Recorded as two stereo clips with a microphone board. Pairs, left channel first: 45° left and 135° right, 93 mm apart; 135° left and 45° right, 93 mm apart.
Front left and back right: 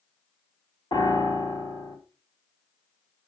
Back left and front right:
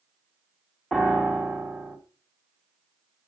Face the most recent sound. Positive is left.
turn(degrees=50)